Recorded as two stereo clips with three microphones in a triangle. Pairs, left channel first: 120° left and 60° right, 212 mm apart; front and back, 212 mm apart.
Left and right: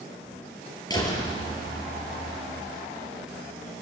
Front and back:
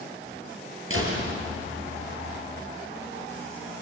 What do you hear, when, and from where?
0.9 s a door slam: 170° right, 6 m